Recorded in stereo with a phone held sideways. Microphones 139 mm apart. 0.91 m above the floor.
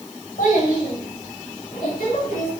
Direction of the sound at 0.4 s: 75° left (ahead or behind).